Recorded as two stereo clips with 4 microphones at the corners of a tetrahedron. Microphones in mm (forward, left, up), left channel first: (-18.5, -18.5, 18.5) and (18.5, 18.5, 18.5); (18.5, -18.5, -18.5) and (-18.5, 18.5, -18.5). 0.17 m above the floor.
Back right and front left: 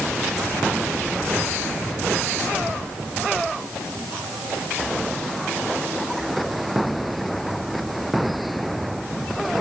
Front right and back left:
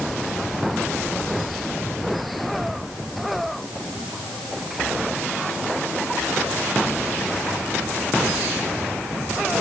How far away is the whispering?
No whispering in this recording.